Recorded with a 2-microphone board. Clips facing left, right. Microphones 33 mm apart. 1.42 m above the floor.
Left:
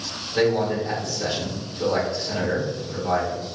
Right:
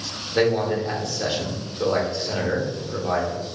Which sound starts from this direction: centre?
A man speaking, at 0.3 s.